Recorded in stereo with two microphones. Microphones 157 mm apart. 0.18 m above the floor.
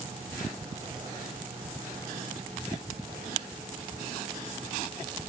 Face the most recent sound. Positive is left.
No sound to turn to.